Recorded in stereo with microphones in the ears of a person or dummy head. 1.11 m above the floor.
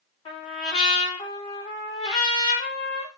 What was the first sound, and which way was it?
A trumpet, 35° left (ahead or behind).